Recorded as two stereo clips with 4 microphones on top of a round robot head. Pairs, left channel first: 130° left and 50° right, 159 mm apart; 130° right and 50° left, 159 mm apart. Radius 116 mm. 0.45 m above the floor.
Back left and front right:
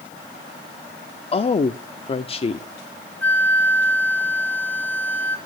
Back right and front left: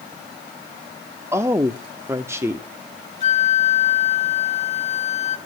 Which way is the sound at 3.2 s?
155° right.